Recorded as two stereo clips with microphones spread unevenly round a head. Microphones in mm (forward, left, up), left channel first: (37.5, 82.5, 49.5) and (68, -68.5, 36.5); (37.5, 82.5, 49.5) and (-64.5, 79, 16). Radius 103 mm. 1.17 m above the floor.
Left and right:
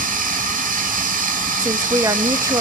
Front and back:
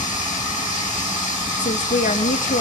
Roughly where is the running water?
Ahead right.